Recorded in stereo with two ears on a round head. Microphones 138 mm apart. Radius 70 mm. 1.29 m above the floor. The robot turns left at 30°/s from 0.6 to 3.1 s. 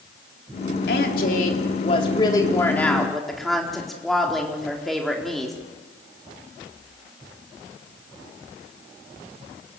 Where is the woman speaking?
70° left, 3.5 m; by 5.5 s straight ahead, 3.5 m.